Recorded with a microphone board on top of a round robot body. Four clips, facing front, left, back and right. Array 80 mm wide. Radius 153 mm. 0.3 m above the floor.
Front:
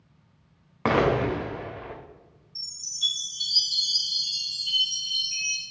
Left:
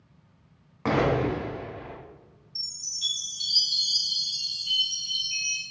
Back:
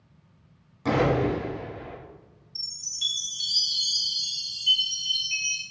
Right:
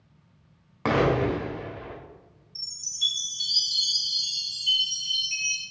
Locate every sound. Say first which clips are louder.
0.8 s an explosion: right 1 dB, front 1 dB; 10° right, 0.9 m
2.5 s a chime: right 8 dB, front 3 dB; 165° right, 2.0 m